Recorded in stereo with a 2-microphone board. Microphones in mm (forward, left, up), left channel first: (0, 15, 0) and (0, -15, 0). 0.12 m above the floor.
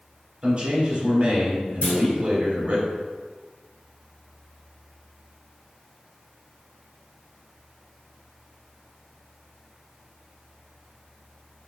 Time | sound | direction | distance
0.4 | a man speaking | 40° right (ahead or behind) | 1.8 m
1.8 | a clunk | 40° left (ahead or behind) | 2.0 m